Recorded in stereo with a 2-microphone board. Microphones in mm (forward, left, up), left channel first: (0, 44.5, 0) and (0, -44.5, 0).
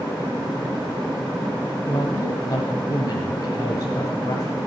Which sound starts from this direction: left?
A woman speaking, at 1.9 s.